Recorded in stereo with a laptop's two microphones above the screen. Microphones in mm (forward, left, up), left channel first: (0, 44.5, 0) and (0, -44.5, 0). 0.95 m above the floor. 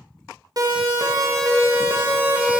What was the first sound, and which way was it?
A siren, 45° right (ahead or behind).